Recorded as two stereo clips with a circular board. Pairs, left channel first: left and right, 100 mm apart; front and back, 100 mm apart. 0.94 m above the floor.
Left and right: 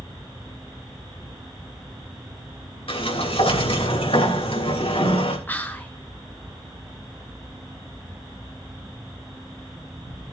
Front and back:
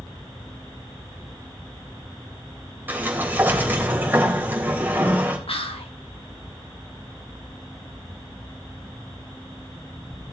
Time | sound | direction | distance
2.9 | a sliding door | 110° left | 3 m
5.5 | whispering | 20° left | 1.8 m